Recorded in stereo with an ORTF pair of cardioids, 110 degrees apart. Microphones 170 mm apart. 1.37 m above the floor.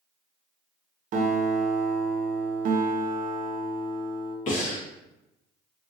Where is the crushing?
No crushing in this recording.